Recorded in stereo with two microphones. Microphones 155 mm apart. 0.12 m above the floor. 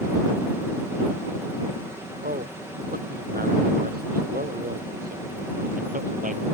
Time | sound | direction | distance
2.2 | a man speaking | 75° right (ahead or behind) | ?